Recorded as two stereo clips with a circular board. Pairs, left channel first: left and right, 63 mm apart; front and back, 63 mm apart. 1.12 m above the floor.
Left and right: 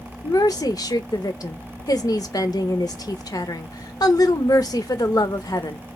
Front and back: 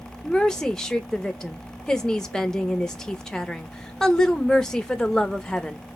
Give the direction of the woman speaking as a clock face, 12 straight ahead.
9 o'clock.